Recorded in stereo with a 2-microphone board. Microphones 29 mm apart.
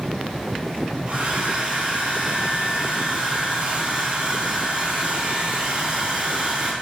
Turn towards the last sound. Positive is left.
turn(degrees=-55)  # may be behind; listen again after turning